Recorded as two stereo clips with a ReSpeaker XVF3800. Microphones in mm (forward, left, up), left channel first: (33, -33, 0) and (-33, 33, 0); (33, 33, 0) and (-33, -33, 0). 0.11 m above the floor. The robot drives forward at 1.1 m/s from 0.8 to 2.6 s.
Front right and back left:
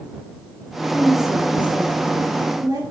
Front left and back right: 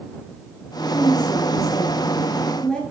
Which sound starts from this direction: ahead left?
A woman speaking, at 0.9 s.